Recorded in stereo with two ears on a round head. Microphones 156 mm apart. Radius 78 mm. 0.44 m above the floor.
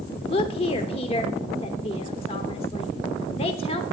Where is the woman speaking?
35° left (ahead or behind), 0.9 m.